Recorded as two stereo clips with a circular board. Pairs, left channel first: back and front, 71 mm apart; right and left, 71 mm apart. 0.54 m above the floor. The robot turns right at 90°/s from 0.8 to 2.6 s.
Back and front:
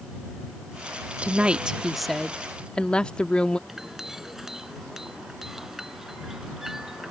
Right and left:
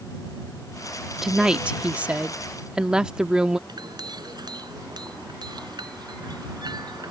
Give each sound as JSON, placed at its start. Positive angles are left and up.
{"t": 1.2, "sound": "a woman speaking", "azimuth_deg": 15}
{"t": 3.7, "sound": "a clink", "azimuth_deg": 85}